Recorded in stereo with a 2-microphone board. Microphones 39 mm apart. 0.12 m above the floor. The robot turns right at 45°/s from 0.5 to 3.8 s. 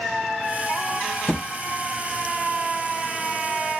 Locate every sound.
1.3 s a thud: 45° left (ahead or behind), 1.2 m; by 1.5 s 40° left (ahead or behind), 1.2 m